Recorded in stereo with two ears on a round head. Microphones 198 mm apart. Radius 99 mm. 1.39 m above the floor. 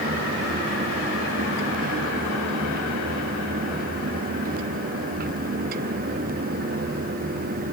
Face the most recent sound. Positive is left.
No sound to turn to.